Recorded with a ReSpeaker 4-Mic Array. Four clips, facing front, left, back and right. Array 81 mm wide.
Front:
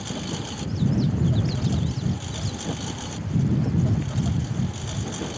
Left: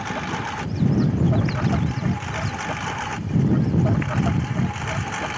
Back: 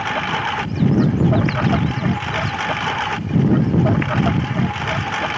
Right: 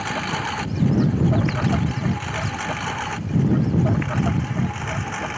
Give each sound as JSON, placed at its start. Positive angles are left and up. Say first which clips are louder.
{"t": 0.0, "sound": "a lawn mower", "louder": "right 2 dB, back 11 dB", "azimuth_deg": -175}